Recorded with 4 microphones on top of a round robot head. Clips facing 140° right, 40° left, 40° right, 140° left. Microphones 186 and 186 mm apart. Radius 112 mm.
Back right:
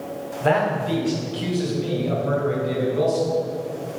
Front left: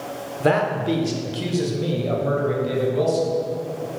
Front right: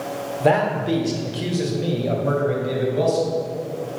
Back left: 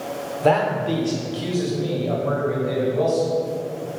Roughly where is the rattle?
No rattle in this recording.